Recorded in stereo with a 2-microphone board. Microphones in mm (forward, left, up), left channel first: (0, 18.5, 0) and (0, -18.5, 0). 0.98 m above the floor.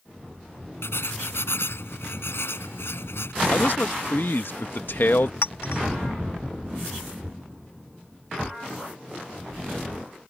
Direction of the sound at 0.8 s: 85° left.